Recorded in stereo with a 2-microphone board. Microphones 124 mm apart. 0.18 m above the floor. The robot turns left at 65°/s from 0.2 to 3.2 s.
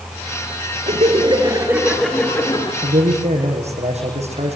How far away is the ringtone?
No ringtone in this recording.